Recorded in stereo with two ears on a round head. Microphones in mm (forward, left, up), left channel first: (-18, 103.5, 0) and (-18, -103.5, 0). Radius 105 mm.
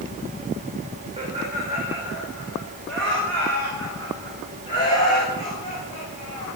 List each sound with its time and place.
1.2 s laughter: 25° right (ahead or behind), 4.5 m; by 6.5 s 30° left (ahead or behind), 9 m